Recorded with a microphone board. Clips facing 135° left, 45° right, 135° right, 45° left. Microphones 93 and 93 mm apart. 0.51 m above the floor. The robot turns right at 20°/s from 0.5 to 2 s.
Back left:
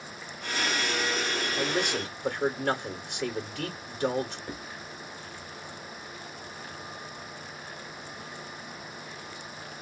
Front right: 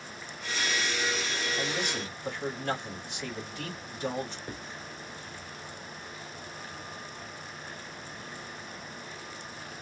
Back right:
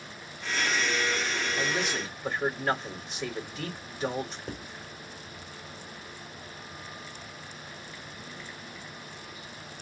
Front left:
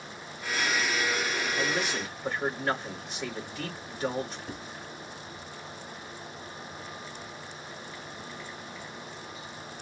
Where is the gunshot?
No gunshot in this recording.